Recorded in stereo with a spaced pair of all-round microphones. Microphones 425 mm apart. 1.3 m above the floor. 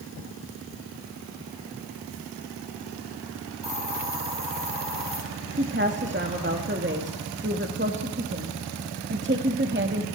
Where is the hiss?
85° right, 7.5 m.